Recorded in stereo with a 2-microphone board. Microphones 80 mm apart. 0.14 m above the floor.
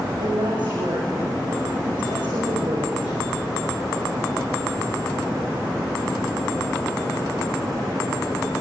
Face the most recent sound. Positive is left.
turn(degrees=-75)  # may be behind; listen again after turning